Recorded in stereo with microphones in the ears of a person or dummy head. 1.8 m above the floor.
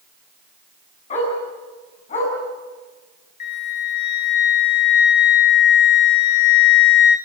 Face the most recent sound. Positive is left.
turn(degrees=55)  # may be behind; listen again after turning